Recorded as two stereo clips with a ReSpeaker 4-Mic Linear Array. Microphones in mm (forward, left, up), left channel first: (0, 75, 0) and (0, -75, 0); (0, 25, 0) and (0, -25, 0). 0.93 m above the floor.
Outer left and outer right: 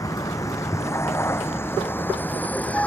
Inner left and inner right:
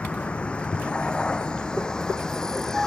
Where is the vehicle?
25° left (ahead or behind); by 2.9 s 10° left (ahead or behind).